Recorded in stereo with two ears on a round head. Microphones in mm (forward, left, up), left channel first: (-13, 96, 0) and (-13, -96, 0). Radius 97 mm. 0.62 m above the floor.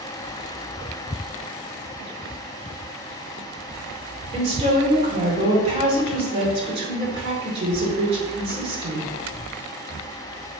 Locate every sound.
4.3 s a woman speaking: 30° right (ahead or behind), 2 m